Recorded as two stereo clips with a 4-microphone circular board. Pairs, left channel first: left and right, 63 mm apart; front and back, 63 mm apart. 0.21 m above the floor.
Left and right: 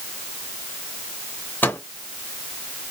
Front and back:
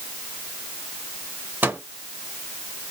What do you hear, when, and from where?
1.6 s a microwave: 135° left, 1.4 m